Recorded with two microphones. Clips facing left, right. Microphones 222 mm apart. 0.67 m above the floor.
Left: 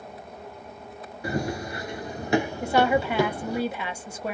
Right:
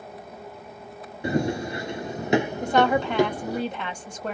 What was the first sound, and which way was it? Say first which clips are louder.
Running footsteps: right 4 dB; 25° right (ahead or behind).